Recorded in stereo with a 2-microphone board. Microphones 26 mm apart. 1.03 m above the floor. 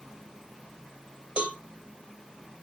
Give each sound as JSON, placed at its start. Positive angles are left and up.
{"t": 1.4, "sound": "a cowbell", "side_deg": -60, "distance_m": 1.4}